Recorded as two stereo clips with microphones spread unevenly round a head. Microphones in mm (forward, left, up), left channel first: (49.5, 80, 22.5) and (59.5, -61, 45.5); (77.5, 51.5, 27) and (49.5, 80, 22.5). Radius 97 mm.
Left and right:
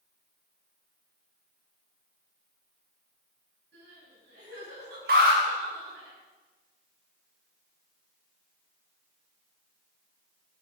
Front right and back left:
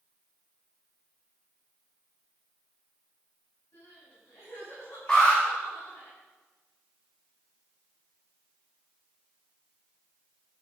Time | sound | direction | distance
3.7 | crying | 105° right | 9 m
5.1 | an alarm | 130° right | 3.5 m